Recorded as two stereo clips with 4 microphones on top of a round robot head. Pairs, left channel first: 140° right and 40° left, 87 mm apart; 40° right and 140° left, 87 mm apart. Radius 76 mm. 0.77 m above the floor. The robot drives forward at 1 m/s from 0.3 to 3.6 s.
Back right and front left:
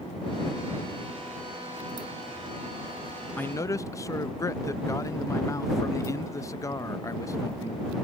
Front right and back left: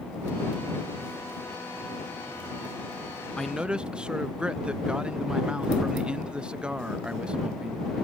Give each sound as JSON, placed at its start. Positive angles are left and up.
{"t": 3.4, "sound": "a man speaking", "azimuth_deg": -105}